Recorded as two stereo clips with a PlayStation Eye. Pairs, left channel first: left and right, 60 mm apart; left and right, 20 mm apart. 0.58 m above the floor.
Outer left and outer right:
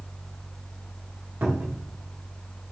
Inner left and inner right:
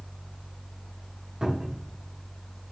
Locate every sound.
1.4 s a cupboard door: 40° right (ahead or behind), 0.9 m